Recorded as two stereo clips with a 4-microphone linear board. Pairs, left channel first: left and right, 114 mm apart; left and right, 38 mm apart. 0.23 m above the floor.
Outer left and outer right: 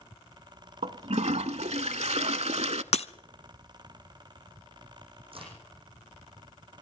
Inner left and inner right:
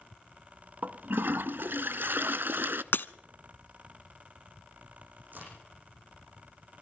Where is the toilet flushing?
70° right (ahead or behind), 0.5 m.